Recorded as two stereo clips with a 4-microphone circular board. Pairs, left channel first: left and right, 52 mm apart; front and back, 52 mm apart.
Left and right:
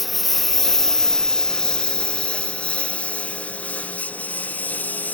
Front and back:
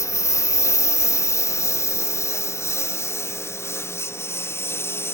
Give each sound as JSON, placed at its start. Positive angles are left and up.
{"t": 0.0, "sound": "a lawn mower", "azimuth_deg": 0}